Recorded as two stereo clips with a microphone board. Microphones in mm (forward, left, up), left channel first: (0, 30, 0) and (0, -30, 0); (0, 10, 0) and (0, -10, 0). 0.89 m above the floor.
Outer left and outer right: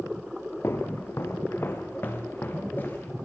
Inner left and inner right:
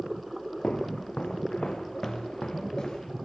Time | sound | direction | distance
0.6 | footsteps | 50° left (ahead or behind) | 2 m